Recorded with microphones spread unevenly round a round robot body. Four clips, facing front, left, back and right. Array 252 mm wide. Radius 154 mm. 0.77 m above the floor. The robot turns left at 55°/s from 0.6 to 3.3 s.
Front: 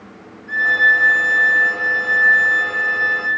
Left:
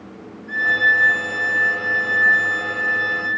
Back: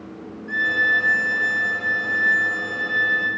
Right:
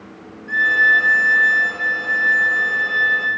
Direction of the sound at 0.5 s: 125° right.